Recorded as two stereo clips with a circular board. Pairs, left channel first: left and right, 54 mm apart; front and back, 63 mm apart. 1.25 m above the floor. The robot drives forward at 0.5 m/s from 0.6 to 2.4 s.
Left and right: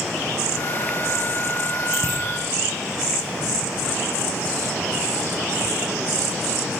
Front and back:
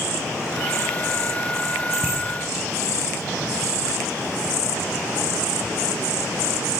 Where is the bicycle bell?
120° right, 8 m.